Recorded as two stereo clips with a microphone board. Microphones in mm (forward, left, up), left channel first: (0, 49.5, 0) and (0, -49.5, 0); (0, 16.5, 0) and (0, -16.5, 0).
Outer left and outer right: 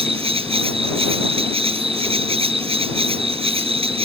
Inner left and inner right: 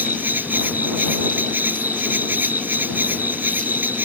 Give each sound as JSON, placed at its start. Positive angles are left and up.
{"t": 0.0, "sound": "an insect", "side_deg": -75}